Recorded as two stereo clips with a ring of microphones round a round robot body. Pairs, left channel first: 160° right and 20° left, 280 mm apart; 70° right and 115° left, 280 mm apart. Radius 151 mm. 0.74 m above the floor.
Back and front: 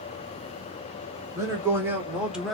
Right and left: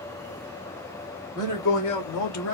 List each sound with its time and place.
1.4 s a man speaking: 55° right, 2.5 m; by 2.5 s 70° right, 1.3 m